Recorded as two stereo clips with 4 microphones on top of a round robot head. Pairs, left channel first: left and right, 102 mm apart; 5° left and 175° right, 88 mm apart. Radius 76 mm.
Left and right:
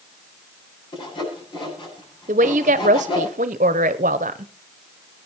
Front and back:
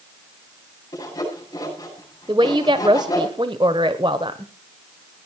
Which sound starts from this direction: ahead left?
Sawing, at 0.9 s.